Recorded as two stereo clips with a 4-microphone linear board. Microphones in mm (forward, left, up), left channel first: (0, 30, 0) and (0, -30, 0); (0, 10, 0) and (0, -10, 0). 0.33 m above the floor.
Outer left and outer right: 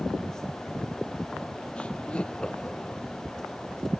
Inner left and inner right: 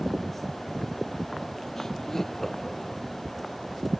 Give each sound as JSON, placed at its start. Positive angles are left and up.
{"t": 1.8, "sound": "laughter", "side_deg": 20}